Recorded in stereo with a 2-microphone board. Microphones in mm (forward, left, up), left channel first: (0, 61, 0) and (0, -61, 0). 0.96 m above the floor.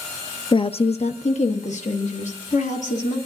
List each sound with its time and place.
0.5 s a woman speaking: 45° left (ahead or behind), 0.5 m; by 3.2 s 80° left, 2.5 m